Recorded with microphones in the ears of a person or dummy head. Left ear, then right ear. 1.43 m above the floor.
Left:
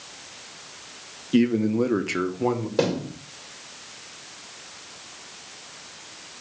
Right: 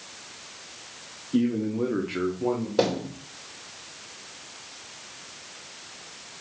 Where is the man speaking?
70° left (ahead or behind), 1.2 m; by 2.7 s 55° left (ahead or behind), 1.3 m.